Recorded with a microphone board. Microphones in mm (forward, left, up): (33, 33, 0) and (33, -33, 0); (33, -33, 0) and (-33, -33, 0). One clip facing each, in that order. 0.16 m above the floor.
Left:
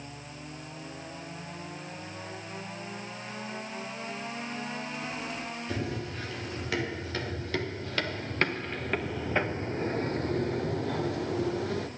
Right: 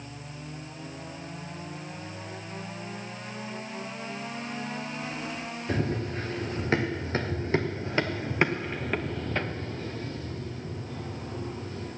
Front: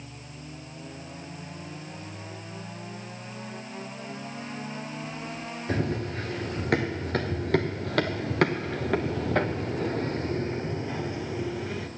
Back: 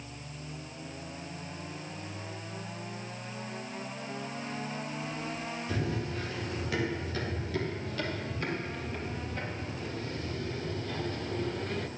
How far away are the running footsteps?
About 2.5 m.